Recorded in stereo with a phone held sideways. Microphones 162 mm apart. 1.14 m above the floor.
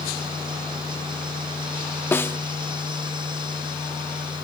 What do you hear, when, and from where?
0.0 s a fan: 30° right (ahead or behind)
2.1 s a snare drum: 15° left (ahead or behind)